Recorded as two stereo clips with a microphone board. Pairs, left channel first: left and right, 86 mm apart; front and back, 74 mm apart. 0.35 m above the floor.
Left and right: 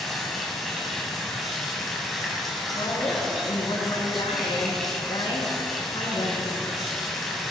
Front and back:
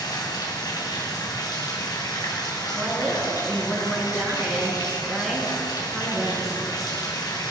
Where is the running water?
Straight ahead, 2.5 m.